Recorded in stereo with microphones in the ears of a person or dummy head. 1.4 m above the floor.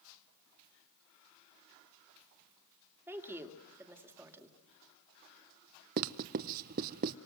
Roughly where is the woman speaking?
Centre.